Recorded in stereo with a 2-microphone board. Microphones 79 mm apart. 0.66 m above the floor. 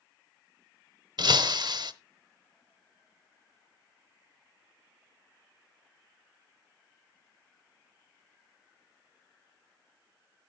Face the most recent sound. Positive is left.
turn(degrees=-65)  # may be behind; listen again after turning